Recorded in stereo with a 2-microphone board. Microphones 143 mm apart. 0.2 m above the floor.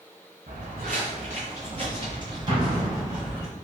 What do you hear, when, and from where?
0.5 s footsteps: 75° right (ahead or behind), 1.5 m; by 3.5 s 10° right (ahead or behind), 1.4 m
2.5 s an explosion: 45° right (ahead or behind), 0.8 m